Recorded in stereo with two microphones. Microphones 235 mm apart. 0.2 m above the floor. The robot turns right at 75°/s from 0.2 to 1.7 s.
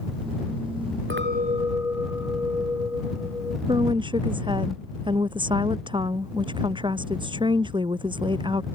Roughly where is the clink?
Ahead right.